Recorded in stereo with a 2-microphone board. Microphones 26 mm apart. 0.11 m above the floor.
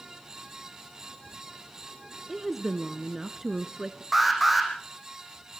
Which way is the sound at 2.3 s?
5° right (ahead or behind).